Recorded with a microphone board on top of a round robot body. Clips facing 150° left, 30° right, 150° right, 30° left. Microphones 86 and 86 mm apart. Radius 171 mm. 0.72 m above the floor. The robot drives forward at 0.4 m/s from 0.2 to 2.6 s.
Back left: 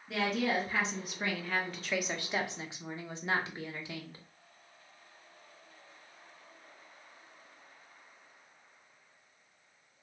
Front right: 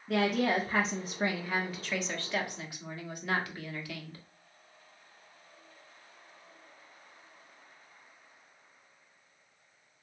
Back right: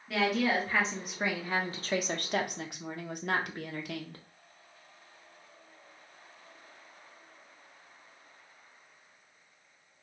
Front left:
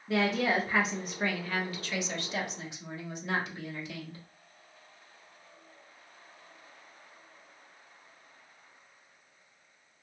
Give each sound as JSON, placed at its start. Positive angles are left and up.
{"t": 0.1, "sound": "a woman speaking", "azimuth_deg": -30, "distance_m": 0.8}